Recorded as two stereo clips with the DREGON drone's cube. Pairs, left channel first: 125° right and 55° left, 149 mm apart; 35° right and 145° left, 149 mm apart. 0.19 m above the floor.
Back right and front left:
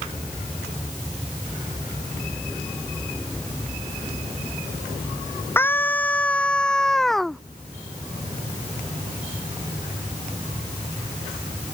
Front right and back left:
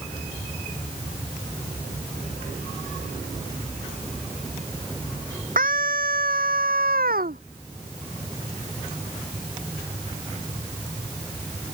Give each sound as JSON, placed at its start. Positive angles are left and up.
{"t": 5.6, "sound": "a scream", "azimuth_deg": 160}